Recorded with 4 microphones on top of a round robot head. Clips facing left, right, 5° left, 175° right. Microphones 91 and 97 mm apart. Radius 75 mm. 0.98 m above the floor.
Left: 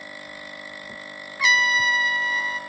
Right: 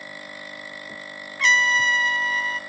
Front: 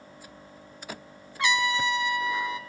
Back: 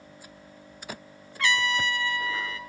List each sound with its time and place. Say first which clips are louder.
1.4 s a trumpet: right 1 dB, front 1 dB; 20° left, 0.6 m